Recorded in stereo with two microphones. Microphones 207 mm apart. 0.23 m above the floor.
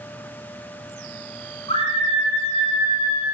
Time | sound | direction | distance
1.7 | a scream | 30° left (ahead or behind) | 5.5 m